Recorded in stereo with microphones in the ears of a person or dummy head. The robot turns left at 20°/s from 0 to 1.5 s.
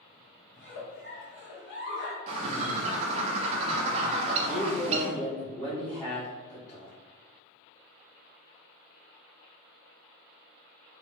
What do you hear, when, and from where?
0.5 s a giggle: 75° left (ahead or behind), 1.7 m; by 2.2 s 60° left (ahead or behind), 1.7 m
2.3 s a bird: 30° right (ahead or behind), 0.6 m
4.5 s a man speaking: 30° left (ahead or behind), 1.4 m